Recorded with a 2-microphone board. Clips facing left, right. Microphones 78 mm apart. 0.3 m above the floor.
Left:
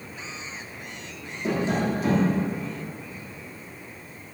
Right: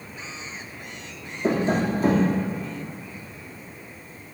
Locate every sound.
1.4 s tapping: 45° right (ahead or behind), 3 m